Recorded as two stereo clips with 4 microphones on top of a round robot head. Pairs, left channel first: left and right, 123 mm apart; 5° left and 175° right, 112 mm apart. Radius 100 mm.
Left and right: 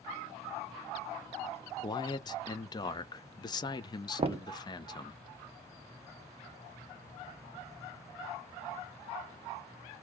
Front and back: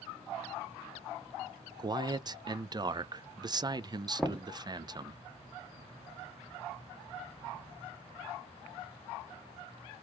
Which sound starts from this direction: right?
Knocking, at 4.2 s.